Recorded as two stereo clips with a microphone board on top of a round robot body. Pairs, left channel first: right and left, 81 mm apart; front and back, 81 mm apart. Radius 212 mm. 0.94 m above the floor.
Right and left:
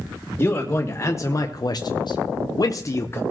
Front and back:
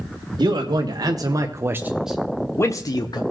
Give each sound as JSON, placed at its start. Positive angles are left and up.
{"t": 0.4, "sound": "a man speaking", "azimuth_deg": -155, "distance_m": 1.5}